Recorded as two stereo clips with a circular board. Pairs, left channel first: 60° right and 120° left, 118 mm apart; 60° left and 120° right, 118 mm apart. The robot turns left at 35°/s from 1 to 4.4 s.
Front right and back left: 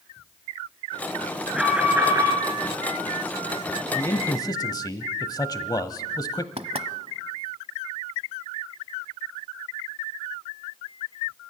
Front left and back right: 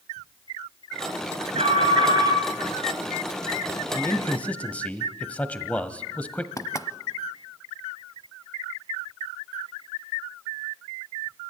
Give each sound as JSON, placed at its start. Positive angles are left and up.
{"t": 1.5, "sound": "an alarm", "azimuth_deg": -150, "distance_m": 4.5}
{"t": 3.9, "sound": "a man speaking", "azimuth_deg": 0, "distance_m": 1.3}
{"t": 6.6, "sound": "knocking", "azimuth_deg": 115, "distance_m": 1.0}